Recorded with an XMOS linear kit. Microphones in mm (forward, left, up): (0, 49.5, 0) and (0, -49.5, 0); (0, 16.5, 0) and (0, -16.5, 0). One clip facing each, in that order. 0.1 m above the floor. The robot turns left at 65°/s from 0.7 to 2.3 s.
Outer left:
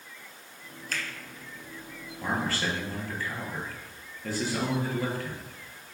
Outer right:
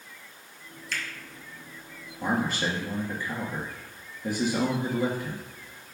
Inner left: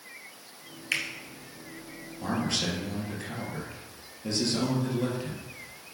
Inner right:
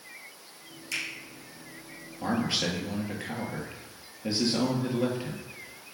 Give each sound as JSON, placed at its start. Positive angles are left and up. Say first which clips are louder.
{"t": 0.9, "sound": "a finger snap", "louder": "even, inner left 4 dB", "side_deg": 45, "distance_m": 1.5}
{"t": 2.2, "sound": "a man speaking", "louder": "outer right 3 dB, inner right 1 dB", "side_deg": -15, "distance_m": 1.7}